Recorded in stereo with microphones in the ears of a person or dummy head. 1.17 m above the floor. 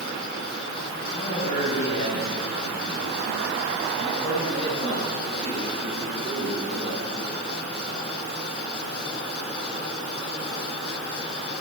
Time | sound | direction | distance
1.1 | a man speaking | 35° left (ahead or behind) | 5.5 m